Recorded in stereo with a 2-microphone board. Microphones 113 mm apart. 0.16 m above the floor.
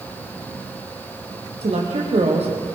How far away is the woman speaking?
About 6 m.